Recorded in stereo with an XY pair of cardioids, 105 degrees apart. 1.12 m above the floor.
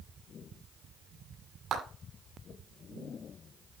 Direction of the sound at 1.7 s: 50° right.